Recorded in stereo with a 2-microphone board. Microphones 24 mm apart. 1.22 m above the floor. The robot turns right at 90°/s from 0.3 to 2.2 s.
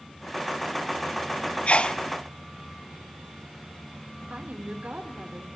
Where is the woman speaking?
70° right (ahead or behind), 3 m.